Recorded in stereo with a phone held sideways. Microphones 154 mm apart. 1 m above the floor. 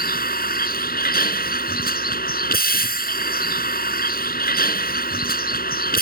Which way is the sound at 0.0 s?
80° left.